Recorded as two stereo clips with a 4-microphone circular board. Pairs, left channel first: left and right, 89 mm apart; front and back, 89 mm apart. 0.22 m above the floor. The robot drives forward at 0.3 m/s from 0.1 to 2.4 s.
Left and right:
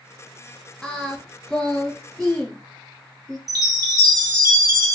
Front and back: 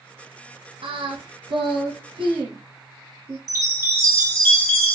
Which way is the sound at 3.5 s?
130° right.